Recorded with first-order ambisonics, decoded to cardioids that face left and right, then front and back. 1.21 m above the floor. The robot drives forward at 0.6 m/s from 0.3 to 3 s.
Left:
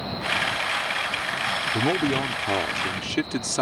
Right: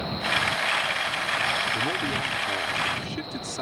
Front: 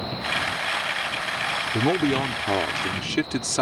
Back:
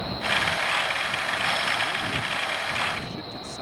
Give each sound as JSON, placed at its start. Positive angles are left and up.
{"t": 1.7, "sound": "a man speaking", "azimuth_deg": 25}